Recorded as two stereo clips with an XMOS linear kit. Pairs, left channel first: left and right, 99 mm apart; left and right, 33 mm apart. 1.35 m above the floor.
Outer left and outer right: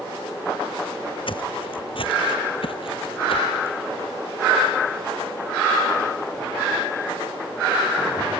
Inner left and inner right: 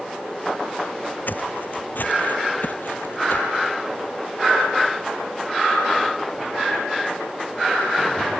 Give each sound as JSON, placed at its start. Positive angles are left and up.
{"t": 1.3, "sound": "footsteps", "side_deg": 60}